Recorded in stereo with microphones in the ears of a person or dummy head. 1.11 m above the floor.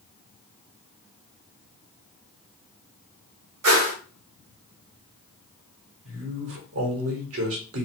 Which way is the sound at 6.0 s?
75° right (ahead or behind).